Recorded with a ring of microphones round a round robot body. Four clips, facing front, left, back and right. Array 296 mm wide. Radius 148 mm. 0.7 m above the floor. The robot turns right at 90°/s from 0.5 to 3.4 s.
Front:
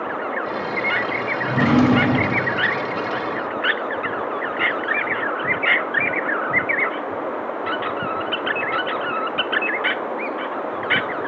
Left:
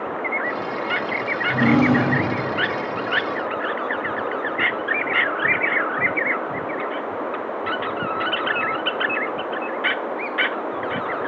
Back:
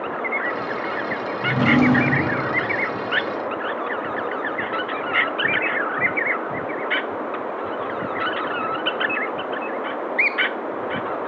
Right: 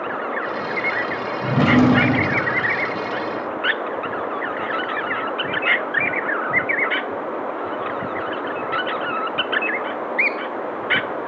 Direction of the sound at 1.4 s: 110° right.